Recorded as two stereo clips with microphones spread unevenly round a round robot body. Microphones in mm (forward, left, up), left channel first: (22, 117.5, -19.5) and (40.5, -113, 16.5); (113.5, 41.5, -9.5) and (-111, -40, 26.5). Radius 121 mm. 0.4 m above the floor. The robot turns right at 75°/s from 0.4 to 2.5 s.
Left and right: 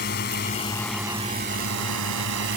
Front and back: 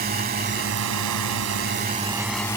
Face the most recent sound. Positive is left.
turn(degrees=-55)